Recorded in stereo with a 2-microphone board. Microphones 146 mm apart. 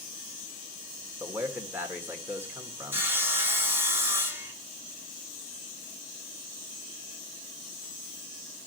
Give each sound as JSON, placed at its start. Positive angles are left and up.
{"t": 1.2, "sound": "a man speaking", "side_deg": -10, "distance_m": 1.8}
{"t": 2.9, "sound": "sawing", "side_deg": -15, "distance_m": 1.2}